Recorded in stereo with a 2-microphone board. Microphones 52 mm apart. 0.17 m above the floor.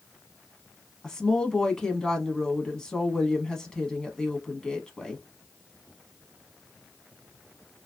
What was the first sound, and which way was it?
A woman speaking, 15° left (ahead or behind).